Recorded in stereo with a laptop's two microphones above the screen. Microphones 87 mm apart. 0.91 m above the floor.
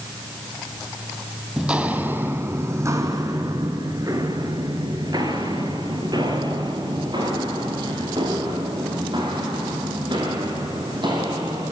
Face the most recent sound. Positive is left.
turn(degrees=-60)  # may be behind; listen again after turning